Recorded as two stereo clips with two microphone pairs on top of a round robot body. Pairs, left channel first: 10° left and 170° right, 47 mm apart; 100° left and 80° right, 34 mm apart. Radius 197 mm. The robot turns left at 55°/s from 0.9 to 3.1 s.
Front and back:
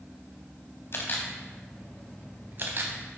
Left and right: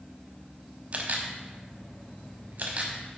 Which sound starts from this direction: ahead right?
A camera shutter, at 0.9 s.